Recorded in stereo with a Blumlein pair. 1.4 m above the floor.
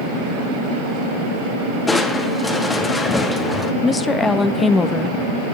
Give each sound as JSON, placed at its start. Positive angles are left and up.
{"t": 1.9, "sound": "crushing", "azimuth_deg": 10, "distance_m": 1.7}
{"t": 3.8, "sound": "a woman speaking", "azimuth_deg": 15, "distance_m": 1.3}